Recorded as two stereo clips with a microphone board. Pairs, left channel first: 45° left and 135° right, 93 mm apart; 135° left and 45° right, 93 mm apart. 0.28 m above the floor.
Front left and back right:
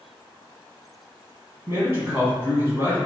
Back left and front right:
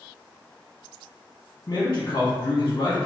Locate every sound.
1.7 s a man speaking: straight behind, 1.7 m